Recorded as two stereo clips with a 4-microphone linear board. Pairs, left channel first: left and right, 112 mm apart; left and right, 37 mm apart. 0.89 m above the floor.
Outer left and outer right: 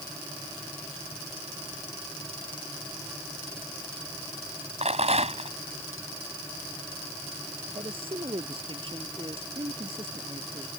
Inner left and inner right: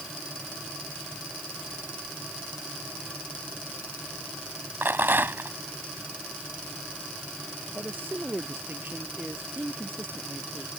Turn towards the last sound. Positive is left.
turn(degrees=-50)  # may be behind; listen again after turning